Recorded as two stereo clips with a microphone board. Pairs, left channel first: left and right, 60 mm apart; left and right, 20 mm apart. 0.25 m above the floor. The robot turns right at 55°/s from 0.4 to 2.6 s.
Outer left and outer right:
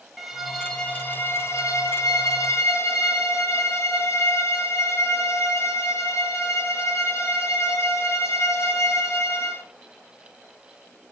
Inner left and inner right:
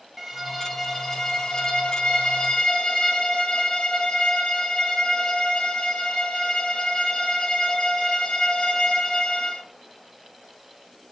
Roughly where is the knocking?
No knocking in this recording.